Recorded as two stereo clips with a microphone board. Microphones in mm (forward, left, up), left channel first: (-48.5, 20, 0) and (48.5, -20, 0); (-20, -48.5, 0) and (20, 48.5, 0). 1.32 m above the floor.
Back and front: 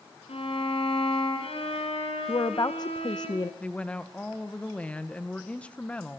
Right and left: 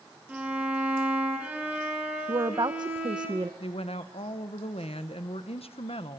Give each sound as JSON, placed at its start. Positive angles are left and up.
{"t": 0.3, "sound": "a violin", "azimuth_deg": 145, "distance_m": 5.5}
{"t": 2.3, "sound": "a woman speaking", "azimuth_deg": 110, "distance_m": 0.7}
{"t": 3.6, "sound": "a woman speaking", "azimuth_deg": -125, "distance_m": 1.3}